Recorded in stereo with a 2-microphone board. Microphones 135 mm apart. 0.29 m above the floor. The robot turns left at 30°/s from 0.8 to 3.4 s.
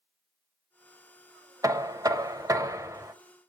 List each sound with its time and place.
1.6 s knocking: 25° right (ahead or behind), 0.8 m; by 3.1 s 20° right (ahead or behind), 0.8 m